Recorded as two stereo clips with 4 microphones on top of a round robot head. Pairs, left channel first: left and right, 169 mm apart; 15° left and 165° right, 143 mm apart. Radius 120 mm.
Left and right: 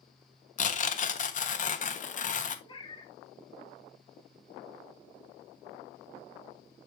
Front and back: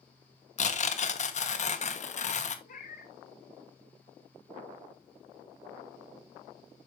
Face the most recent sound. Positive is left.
turn(degrees=30)